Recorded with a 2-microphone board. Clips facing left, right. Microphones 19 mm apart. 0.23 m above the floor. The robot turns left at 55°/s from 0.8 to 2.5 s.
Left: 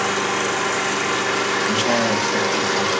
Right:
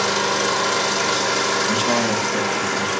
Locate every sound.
0.0 s an engine running: 110° right, 3 m; by 3.0 s 155° left, 3 m
1.6 s a man speaking: 165° left, 6 m; by 2.9 s 115° left, 6 m